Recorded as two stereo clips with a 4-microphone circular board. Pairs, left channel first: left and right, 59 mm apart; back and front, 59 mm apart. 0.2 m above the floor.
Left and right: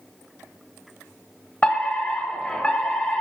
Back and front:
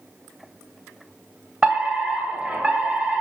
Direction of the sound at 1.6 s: 65° left.